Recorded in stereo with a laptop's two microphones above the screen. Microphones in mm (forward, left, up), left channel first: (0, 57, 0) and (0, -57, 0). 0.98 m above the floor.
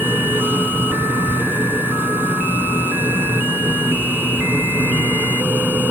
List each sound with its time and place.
0.0 s a machine running: 15° right (ahead or behind)